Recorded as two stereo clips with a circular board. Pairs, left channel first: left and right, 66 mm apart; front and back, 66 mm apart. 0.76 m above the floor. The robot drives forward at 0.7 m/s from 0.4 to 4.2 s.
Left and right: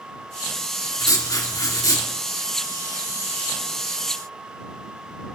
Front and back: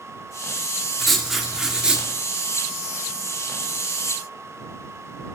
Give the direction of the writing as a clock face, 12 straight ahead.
9 o'clock.